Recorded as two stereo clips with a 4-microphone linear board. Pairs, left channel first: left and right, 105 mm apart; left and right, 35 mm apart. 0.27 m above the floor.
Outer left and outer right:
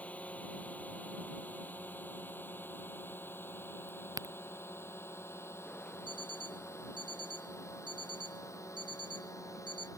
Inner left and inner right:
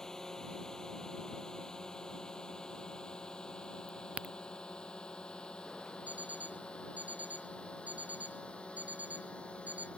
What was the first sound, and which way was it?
A drone, 15° left (ahead or behind).